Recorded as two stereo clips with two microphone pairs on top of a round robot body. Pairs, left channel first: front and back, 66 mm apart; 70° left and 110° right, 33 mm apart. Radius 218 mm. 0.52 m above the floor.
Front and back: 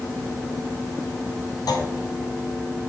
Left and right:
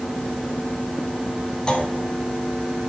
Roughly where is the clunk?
Ahead.